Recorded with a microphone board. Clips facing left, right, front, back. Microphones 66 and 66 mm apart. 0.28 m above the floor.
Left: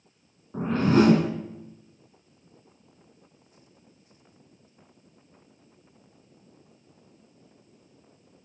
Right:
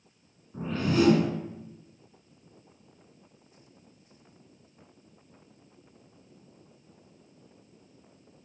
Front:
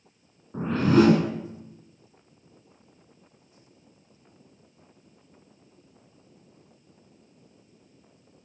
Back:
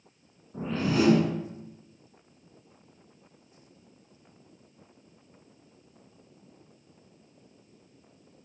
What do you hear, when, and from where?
0.5 s a whoosh: 45° left, 1.2 m